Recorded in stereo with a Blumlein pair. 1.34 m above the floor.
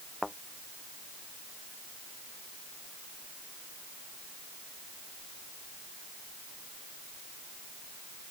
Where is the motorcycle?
I don't hear a motorcycle.